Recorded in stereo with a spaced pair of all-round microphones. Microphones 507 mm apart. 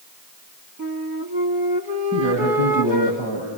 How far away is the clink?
I don't hear a clink.